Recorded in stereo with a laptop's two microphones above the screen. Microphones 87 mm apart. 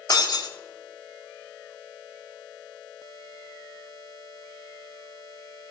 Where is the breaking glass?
50° left (ahead or behind), 1.2 m.